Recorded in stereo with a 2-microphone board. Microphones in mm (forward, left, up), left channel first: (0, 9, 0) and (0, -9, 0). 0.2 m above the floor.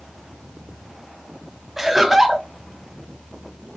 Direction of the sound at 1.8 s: 15° right (ahead or behind).